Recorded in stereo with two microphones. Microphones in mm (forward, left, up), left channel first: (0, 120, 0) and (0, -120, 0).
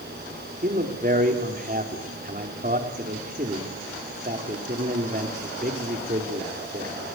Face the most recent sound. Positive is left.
turn(degrees=-35)  # may be behind; listen again after turning